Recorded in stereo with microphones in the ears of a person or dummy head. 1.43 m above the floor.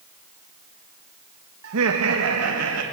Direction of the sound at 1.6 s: 80° right.